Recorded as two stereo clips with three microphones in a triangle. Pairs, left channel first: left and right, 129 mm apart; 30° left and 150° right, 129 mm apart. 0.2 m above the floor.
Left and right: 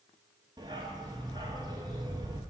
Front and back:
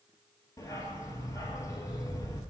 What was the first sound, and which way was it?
A dog barking, 35° right.